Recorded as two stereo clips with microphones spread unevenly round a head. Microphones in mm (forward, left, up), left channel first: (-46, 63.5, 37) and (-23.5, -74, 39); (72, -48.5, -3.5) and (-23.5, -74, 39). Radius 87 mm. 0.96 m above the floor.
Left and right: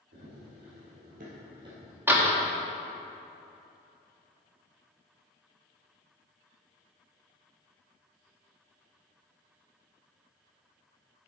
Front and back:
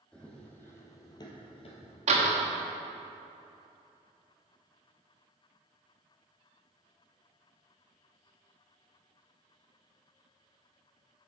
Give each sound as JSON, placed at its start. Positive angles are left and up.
{"t": 0.1, "sound": "running footsteps", "azimuth_deg": -75, "distance_m": 2.5}
{"t": 2.1, "sound": "a door slam", "azimuth_deg": -155, "distance_m": 1.3}